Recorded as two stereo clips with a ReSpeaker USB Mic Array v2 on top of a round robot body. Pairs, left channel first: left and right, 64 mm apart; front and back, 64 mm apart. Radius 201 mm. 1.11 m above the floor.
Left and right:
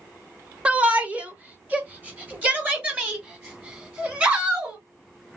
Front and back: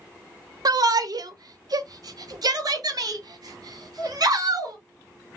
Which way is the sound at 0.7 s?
160° right.